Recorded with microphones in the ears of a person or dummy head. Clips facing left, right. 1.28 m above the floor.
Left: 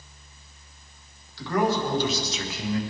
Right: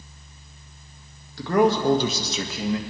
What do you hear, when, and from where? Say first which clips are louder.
1.4 s a man speaking: right 5 dB; 40° right (ahead or behind), 1.8 m; by 2.8 s 65° right (ahead or behind), 1.8 m